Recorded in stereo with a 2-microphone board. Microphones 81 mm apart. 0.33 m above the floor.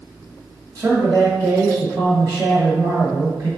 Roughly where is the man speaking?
Right.